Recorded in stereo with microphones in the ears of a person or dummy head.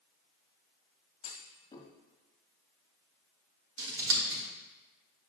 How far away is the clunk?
About 1.5 m.